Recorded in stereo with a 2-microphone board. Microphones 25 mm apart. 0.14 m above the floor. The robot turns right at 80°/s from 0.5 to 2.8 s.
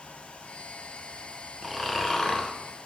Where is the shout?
No shout in this recording.